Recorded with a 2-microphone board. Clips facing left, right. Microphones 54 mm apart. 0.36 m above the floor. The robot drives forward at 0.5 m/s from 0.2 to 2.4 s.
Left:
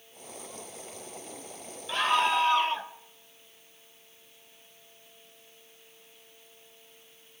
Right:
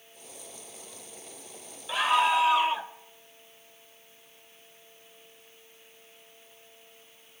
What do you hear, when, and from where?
1.9 s a scream: 5° right (ahead or behind), 1.6 m; by 2.9 s 10° right (ahead or behind), 1.5 m